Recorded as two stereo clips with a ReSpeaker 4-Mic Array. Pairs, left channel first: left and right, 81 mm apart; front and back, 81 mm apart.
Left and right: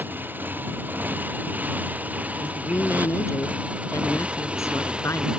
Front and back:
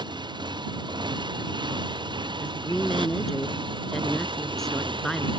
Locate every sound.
0.0 s a motorcycle: 155° right; by 5.4 s 170° right
2.4 s a woman speaking: 80° left